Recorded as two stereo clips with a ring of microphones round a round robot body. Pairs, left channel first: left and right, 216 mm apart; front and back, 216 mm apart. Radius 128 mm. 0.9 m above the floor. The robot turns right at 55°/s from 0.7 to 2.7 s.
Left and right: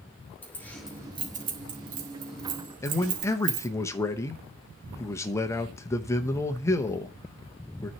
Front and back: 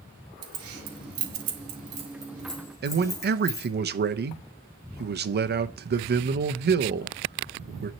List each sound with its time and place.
0.4 s keys jangling: 175° left, 1.5 m; by 3.7 s 75° right, 1.5 m
2.8 s a man speaking: 165° left, 0.9 m